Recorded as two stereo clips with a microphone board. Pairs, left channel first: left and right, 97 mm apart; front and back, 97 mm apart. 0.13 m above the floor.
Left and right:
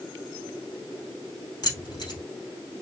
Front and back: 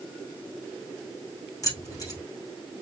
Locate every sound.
1.6 s keys jangling: 50° left, 2.5 m